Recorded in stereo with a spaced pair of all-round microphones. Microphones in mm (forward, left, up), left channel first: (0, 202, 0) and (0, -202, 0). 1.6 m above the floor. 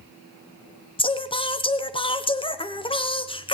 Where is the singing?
15° left (ahead or behind), 0.9 m.